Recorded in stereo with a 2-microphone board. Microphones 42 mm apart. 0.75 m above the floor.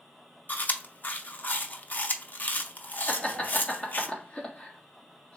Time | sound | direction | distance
0.5 | chewing | 45° left (ahead or behind) | 0.5 m
3.1 | laughter | 35° left (ahead or behind) | 1.3 m